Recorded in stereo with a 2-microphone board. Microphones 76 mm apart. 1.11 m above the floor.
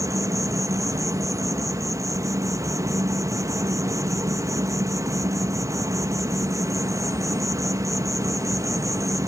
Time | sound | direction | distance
0.0 | an insect | 40° right (ahead or behind) | 0.8 m